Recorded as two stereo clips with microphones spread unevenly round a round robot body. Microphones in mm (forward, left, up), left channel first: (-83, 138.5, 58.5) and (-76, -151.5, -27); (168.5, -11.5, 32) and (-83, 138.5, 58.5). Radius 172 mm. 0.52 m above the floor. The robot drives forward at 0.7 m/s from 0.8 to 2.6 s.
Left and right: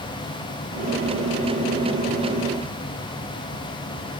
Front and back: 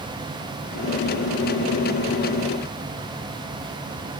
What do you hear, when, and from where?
Only background noise.